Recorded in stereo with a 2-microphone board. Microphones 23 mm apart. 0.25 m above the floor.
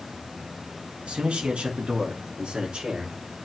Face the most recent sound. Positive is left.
turn(degrees=-35)  # may be behind; listen again after turning